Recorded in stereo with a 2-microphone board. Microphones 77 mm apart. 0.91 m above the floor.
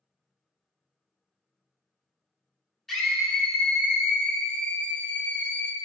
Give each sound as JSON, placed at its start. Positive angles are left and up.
{"t": 2.9, "sound": "a scream", "side_deg": 5, "distance_m": 3.0}